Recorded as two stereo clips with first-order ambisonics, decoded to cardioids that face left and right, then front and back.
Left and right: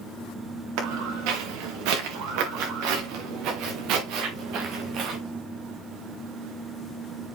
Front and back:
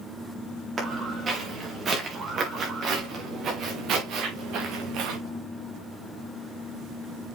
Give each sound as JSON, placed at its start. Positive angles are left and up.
{"t": 0.8, "sound": "footsteps", "azimuth_deg": -105, "distance_m": 4.5}